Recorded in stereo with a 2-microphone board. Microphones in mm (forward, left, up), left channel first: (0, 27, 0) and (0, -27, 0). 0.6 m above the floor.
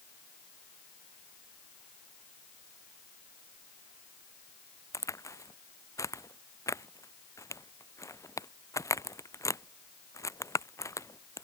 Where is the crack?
75° left (ahead or behind).